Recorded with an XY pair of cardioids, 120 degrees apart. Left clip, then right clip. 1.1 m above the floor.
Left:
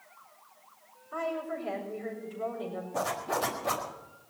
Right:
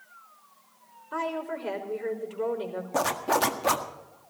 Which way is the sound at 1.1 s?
50° right.